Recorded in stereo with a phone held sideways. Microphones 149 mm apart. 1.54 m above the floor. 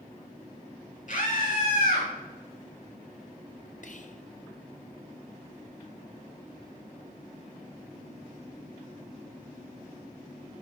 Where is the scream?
60° left (ahead or behind), 2.5 m; by 2.1 s 70° left (ahead or behind), 3 m.